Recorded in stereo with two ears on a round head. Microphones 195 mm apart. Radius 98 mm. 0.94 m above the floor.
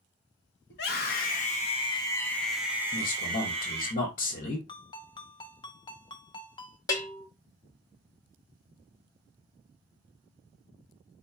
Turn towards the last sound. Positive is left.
turn(degrees=15)  # may be behind; listen again after turning